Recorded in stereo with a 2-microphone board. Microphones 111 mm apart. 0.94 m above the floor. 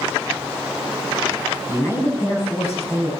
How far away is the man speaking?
About 8 m.